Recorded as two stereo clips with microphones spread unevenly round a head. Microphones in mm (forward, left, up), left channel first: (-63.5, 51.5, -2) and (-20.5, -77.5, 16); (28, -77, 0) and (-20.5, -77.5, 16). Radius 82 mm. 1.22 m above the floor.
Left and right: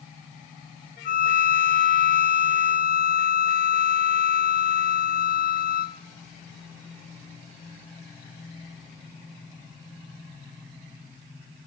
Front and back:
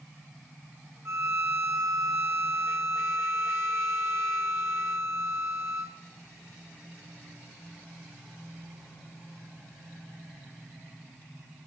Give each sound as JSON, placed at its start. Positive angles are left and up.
{"t": 1.1, "sound": "a violin", "azimuth_deg": 125, "distance_m": 1.7}